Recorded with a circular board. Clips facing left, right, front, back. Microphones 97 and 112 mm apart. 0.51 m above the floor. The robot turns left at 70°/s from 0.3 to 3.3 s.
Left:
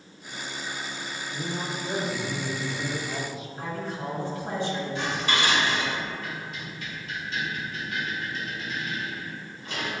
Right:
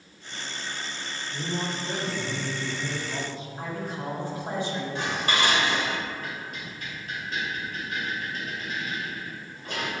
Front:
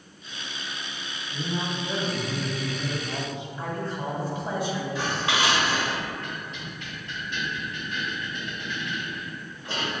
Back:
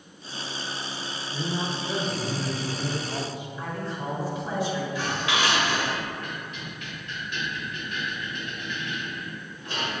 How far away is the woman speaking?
About 1.5 m.